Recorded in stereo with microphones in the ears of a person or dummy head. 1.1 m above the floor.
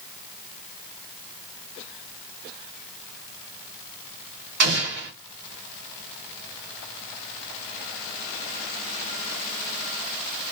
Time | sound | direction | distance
4.6 | an explosion | 55° right (ahead or behind) | 1.5 m